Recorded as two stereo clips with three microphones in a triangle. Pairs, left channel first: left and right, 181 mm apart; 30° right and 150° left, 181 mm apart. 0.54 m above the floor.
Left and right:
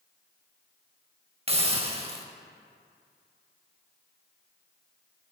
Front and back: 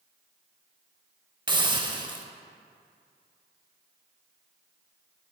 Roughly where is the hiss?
Behind right.